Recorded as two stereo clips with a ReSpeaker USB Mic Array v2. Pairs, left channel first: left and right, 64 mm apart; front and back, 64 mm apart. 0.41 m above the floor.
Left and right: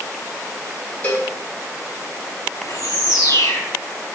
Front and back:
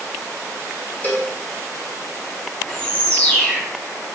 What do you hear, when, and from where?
1.0 s a cowbell: 40° left, 1.8 m
2.6 s a bird: 65° left, 1.9 m